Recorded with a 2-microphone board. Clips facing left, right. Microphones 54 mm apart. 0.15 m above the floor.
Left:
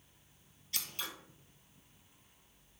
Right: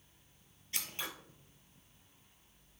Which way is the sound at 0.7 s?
30° right (ahead or behind).